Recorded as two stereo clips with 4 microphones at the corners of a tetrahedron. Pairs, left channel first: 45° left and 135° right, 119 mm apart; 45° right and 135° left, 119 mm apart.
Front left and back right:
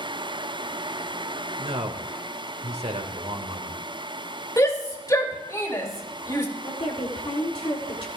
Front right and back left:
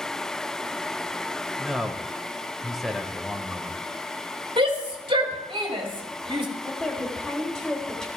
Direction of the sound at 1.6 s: 135° right.